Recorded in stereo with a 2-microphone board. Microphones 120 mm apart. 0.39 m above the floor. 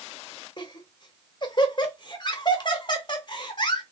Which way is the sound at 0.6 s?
40° left (ahead or behind).